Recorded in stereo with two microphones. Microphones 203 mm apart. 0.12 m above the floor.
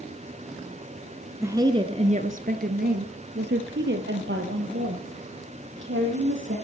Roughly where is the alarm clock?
No alarm clock in this recording.